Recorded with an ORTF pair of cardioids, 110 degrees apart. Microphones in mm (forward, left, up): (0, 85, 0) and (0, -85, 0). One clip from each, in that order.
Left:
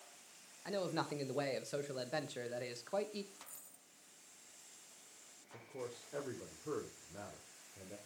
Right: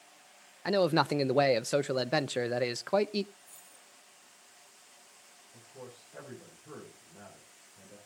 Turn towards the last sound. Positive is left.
turn(degrees=65)